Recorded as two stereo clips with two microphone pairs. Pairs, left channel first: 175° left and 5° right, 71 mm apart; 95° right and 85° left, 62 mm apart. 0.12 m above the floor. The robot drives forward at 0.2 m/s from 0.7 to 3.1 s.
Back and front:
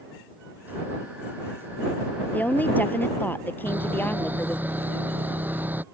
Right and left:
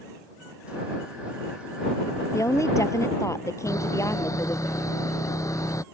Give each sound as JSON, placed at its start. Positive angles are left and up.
{"t": 2.3, "sound": "a woman speaking", "azimuth_deg": -120}
{"t": 3.7, "sound": "sawing", "azimuth_deg": -65}